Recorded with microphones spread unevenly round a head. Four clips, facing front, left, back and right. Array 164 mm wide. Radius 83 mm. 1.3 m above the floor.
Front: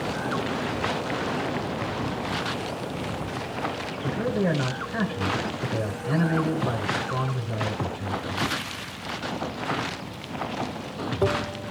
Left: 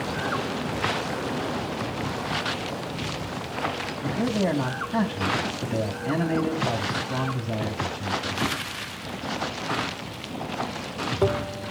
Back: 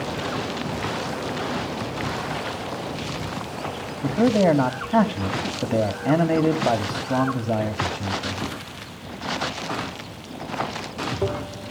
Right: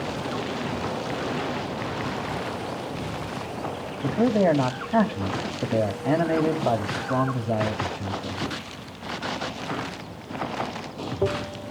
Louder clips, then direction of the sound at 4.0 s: Right 5 dB, back 8 dB; 160° right.